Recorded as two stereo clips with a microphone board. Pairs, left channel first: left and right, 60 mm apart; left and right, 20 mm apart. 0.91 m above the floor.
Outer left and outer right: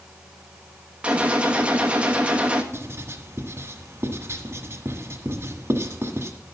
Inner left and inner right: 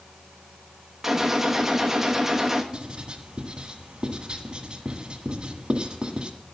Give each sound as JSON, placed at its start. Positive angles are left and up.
{"t": 1.0, "sound": "a gunshot", "side_deg": -20, "distance_m": 1.2}
{"t": 2.7, "sound": "writing", "side_deg": -50, "distance_m": 1.5}